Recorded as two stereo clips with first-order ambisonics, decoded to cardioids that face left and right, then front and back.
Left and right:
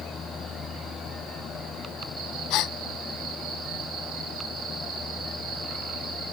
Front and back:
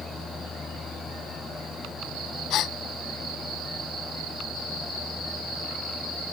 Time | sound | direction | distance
2.5 | a gasp | 50° left | ?